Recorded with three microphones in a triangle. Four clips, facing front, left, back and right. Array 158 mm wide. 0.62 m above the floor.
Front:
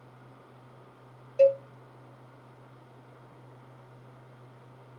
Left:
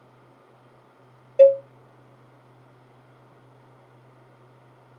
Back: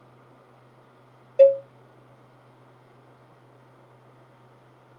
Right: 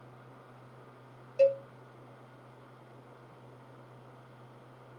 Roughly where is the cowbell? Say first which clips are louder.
Left 11 dB, back 6 dB; behind left.